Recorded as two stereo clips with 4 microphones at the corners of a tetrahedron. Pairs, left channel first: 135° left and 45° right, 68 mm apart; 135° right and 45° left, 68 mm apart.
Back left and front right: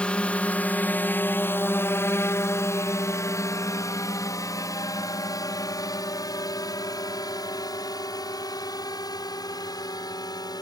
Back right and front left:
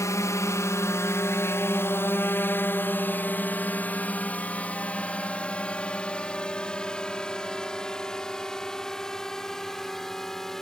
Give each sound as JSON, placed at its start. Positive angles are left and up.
{"t": 0.0, "sound": "a drone", "azimuth_deg": -155}